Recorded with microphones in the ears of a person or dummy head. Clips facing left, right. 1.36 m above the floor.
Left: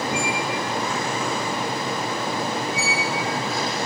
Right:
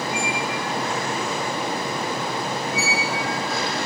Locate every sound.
0.1 s a squeak: 80° left
2.7 s a squeak: 60° right (ahead or behind)